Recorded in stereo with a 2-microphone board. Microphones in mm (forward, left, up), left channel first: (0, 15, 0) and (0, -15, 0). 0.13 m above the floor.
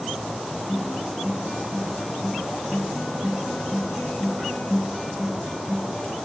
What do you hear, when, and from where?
0.7 s a guitar: 25° right (ahead or behind), 5 m